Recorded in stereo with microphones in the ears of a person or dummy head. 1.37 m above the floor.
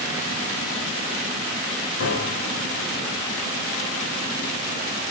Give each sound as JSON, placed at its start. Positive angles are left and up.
{"t": 2.0, "sound": "a piano", "side_deg": 50, "distance_m": 1.6}